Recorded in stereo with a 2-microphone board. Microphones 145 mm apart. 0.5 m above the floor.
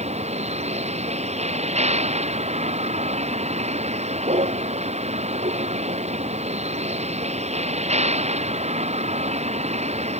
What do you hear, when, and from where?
0.0 s a vehicle: 50° right (ahead or behind)